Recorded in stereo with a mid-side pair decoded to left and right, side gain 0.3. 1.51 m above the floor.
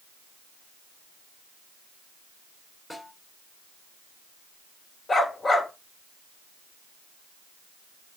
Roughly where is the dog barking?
Ahead left.